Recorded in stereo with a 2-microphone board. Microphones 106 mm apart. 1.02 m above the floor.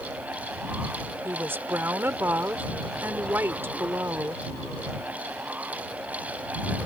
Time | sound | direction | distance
1.2 | a woman speaking | 20° right (ahead or behind) | ?